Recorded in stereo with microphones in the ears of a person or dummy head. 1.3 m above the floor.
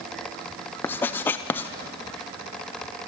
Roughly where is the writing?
Centre.